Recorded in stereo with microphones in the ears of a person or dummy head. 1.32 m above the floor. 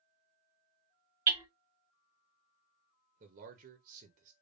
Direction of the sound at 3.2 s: 40° right (ahead or behind).